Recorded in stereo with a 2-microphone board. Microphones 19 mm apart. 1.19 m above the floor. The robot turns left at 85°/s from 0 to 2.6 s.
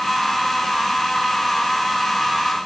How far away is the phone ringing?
I don't hear a phone ringing.